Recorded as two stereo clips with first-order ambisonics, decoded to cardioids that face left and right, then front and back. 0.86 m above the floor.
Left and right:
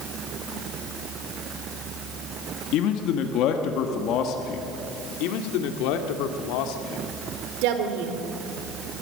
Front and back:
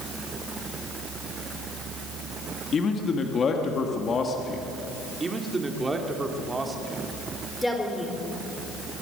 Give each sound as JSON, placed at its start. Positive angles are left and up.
{"t": 2.7, "sound": "a man speaking", "azimuth_deg": 65, "distance_m": 1.6}
{"t": 5.2, "sound": "a man speaking", "azimuth_deg": 105, "distance_m": 2.0}
{"t": 7.6, "sound": "a woman speaking", "azimuth_deg": -85, "distance_m": 3.0}